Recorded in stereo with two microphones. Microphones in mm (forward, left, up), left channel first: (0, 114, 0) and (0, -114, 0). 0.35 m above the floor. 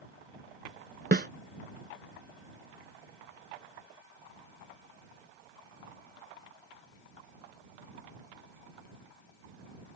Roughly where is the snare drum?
Right.